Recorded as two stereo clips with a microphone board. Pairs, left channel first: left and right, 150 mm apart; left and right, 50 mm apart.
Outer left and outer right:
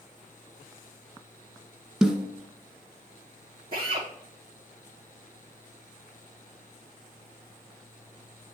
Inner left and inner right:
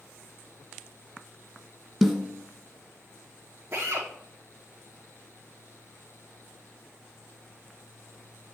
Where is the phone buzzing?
I don't hear a phone buzzing.